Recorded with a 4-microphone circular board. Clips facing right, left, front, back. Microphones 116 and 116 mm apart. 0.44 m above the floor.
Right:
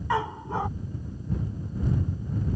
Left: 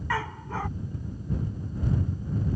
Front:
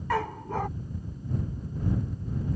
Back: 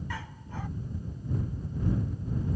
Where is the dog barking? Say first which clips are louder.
Right 4 dB, front 12 dB; 20° right.